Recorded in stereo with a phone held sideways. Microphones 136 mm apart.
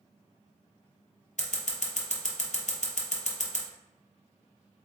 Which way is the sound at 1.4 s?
65° left (ahead or behind).